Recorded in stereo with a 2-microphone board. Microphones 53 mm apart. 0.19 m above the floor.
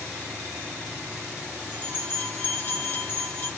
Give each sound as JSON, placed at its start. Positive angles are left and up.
{"t": 1.7, "sound": "a bell", "side_deg": 45, "distance_m": 1.7}